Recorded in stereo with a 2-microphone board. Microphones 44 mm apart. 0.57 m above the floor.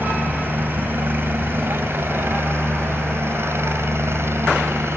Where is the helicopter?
45° right (ahead or behind); by 5.0 s 65° right (ahead or behind).